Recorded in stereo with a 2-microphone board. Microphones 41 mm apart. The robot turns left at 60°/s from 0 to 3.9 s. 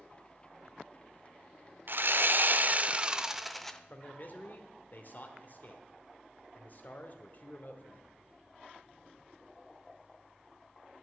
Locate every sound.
1.9 s sawing: 80° right, 0.6 m; by 3.8 s 165° left, 0.6 m
3.9 s a man speaking: 50° left (ahead or behind), 1.1 m